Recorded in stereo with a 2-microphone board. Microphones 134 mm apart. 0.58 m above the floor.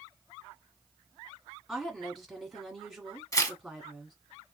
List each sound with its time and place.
1.7 s a woman speaking: centre (ahead or behind), 1.5 m
3.3 s tearing paper: 25° left (ahead or behind), 0.7 m